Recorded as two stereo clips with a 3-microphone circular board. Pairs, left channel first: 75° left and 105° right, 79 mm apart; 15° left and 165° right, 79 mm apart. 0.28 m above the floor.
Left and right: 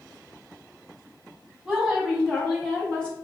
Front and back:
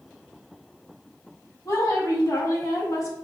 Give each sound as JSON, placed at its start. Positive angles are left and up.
{"t": 1.6, "sound": "a woman speaking", "azimuth_deg": -20, "distance_m": 2.0}